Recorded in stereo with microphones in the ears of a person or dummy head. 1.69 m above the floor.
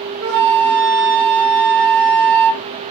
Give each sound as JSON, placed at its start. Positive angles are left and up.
{"t": 0.2, "sound": "a flute", "side_deg": -70, "distance_m": 1.0}